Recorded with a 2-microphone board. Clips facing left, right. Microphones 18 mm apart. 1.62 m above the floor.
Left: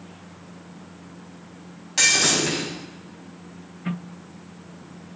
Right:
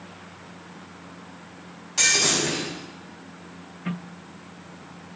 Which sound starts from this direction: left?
Breaking glass, at 2.0 s.